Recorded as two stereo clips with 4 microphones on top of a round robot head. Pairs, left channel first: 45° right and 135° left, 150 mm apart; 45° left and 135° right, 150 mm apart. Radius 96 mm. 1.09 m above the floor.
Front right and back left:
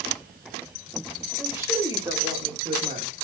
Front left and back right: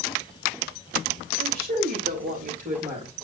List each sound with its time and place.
1.4 s a woman speaking: 145° right, 3.5 m; by 3.1 s 175° left, 3.5 m